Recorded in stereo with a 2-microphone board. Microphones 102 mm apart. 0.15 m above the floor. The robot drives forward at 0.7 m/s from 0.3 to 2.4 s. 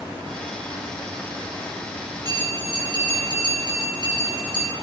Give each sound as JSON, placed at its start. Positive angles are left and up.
{"t": 2.2, "sound": "a bell", "side_deg": -40, "distance_m": 5.5}